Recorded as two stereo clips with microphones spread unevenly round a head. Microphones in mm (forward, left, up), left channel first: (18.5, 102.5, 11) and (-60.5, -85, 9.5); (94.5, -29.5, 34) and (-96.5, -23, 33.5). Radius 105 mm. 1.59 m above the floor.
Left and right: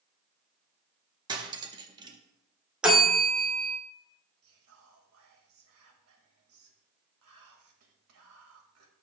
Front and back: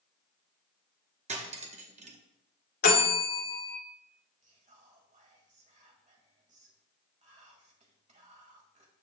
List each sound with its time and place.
1.3 s cutlery clinking: 165° right, 0.8 m
2.8 s a bell: 30° right, 1.9 m
4.4 s whispering: 130° right, 1.9 m